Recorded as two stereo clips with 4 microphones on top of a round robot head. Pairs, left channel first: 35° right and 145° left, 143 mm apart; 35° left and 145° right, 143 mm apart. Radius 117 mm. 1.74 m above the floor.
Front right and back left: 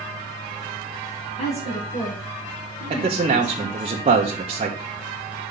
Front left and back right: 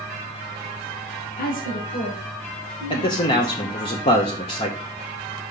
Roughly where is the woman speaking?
Ahead.